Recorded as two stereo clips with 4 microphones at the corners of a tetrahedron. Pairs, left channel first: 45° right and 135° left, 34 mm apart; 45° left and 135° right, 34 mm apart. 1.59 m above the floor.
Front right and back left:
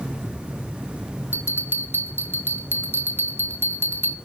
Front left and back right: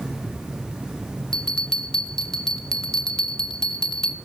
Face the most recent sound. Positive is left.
turn(degrees=115)